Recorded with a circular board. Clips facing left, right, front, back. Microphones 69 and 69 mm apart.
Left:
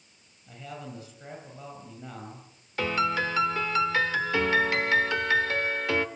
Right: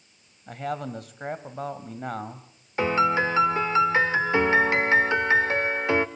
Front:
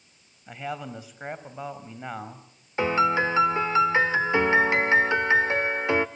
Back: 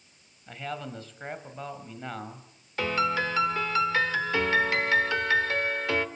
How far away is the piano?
About 1.1 m.